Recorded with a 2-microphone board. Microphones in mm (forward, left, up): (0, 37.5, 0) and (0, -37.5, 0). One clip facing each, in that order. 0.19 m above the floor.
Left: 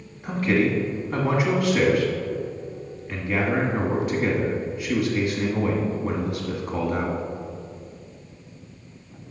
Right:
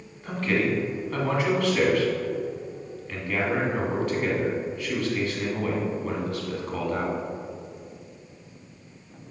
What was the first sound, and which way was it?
A man speaking, 15° left (ahead or behind).